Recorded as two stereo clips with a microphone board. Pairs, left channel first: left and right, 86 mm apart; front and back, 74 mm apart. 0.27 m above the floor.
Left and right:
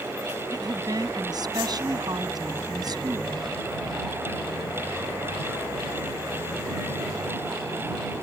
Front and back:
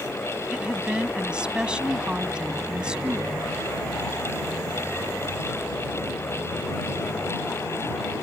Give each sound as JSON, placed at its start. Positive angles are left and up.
{"t": 0.5, "sound": "a woman speaking", "azimuth_deg": -105}